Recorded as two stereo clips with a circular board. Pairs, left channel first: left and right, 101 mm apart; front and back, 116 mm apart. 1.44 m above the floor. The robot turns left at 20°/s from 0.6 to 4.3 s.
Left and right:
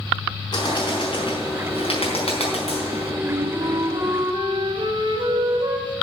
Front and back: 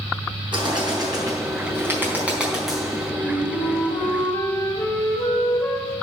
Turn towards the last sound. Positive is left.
turn(degrees=-60)